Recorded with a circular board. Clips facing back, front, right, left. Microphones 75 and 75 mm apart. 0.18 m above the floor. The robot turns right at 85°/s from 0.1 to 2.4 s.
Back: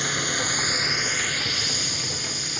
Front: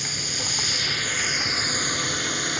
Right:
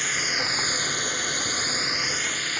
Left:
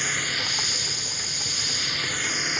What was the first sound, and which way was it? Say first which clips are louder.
A drone: back 6 dB, right 1 dB; straight behind.